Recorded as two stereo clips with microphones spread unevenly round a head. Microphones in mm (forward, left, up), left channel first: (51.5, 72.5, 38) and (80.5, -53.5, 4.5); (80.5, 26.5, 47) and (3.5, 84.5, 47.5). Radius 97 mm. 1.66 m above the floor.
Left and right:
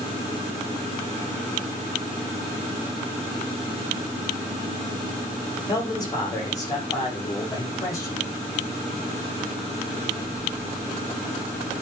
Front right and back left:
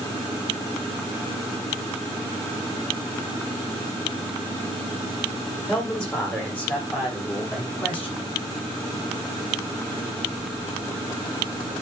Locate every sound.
5.7 s a man speaking: 40° left, 9.5 m; by 8.3 s 35° left, 10.5 m